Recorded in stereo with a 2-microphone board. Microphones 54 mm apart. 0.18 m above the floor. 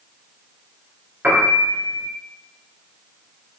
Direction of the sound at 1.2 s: 35° right (ahead or behind).